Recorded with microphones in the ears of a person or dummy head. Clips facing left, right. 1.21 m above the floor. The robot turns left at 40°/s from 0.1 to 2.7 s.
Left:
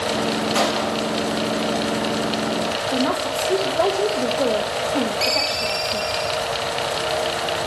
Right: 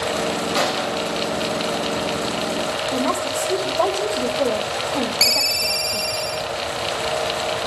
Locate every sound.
0.6 s a gunshot: 50° left (ahead or behind), 5.5 m; by 1.2 s 70° left (ahead or behind), 5.5 m
2.9 s a woman speaking: 15° left (ahead or behind), 1.2 m
5.2 s a ringtone: 70° right (ahead or behind), 0.6 m